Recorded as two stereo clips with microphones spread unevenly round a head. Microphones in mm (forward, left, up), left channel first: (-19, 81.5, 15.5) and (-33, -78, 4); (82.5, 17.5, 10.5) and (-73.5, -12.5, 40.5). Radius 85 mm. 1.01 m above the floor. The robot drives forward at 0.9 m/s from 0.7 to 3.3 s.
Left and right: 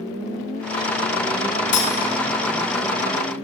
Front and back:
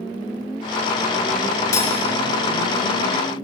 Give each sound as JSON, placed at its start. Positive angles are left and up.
{"t": 1.7, "sound": "cutlery clinking", "azimuth_deg": 85, "distance_m": 0.6}